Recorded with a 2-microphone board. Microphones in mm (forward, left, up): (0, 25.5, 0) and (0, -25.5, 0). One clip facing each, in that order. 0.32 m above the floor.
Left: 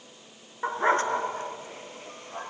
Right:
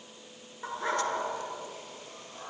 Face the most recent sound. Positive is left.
turn(degrees=40)  # may be behind; listen again after turning